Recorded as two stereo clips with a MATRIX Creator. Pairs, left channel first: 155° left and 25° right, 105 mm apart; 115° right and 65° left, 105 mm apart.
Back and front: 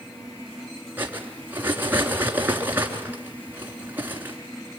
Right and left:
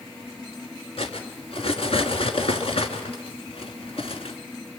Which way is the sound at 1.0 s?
95° right.